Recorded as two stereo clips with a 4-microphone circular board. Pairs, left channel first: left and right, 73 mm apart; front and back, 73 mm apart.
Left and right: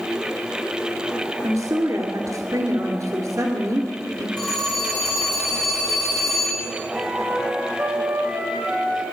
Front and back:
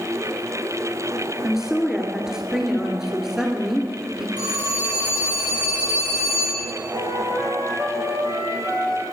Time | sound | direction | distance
1.4 | a woman speaking | 100° right | 1.9 m
4.4 | a phone ringing | 170° left | 7 m
6.9 | a flute | 155° right | 4 m